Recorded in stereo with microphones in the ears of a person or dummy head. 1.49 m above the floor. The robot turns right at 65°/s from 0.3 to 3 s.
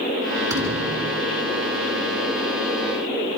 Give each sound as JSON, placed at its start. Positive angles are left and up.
{"t": 0.5, "sound": "a thud", "azimuth_deg": -165, "distance_m": 3.5}